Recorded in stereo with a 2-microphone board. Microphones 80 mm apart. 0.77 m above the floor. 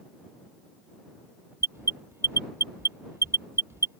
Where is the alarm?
30° right (ahead or behind).